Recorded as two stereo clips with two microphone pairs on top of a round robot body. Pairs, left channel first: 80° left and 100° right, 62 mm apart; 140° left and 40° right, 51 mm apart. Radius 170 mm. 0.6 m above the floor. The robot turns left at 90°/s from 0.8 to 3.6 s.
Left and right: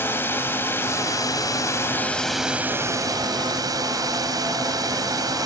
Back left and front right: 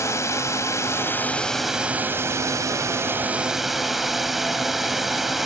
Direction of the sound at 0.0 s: 125° left.